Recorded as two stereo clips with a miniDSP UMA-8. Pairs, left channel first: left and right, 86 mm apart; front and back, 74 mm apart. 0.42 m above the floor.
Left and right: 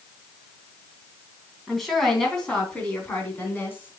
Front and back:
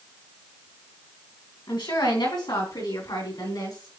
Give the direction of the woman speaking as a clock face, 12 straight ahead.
12 o'clock.